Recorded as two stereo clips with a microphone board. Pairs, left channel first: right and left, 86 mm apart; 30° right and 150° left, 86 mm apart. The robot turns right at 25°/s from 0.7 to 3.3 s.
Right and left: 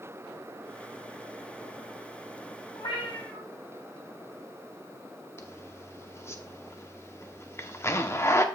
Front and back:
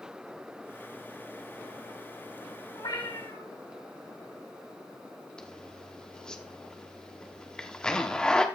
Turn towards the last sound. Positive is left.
turn(degrees=-100)